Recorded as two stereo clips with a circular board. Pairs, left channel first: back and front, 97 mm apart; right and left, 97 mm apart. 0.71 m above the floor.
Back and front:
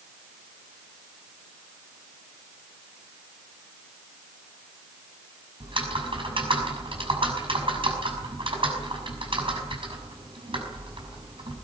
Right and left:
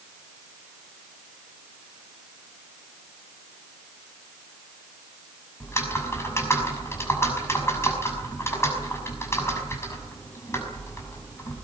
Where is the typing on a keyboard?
30° right, 6 m.